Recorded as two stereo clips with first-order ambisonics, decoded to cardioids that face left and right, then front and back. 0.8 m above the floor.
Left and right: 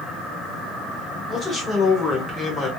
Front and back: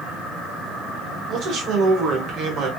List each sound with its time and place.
1.3 s a man speaking: 160° left, 1.1 m